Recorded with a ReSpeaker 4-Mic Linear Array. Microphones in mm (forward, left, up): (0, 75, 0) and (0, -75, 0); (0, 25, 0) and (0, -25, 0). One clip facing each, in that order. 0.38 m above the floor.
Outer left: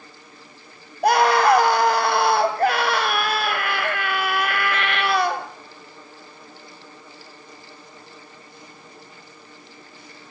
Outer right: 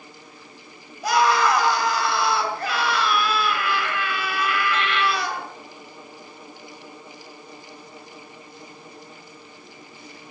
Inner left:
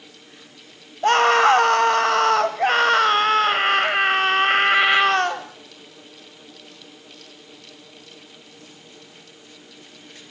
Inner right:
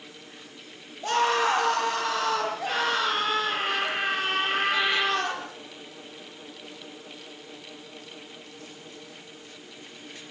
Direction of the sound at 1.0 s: 55° left (ahead or behind).